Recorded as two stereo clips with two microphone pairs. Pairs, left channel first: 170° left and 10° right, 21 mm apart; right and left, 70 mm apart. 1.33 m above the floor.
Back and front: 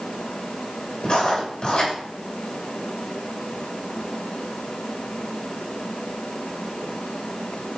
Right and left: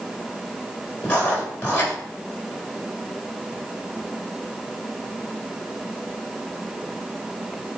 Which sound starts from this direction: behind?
Writing, at 1.0 s.